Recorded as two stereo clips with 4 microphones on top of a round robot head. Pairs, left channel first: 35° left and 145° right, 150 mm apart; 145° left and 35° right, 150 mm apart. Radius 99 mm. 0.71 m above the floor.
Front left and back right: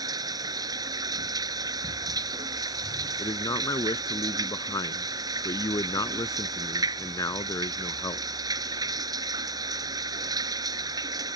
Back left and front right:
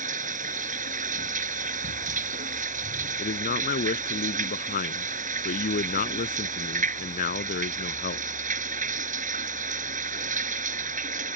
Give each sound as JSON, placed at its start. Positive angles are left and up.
{"t": 0.0, "sound": "running water", "azimuth_deg": -75}
{"t": 3.2, "sound": "a man speaking", "azimuth_deg": 110}